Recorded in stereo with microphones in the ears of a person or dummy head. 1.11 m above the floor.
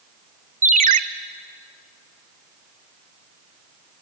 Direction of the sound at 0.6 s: 45° right (ahead or behind).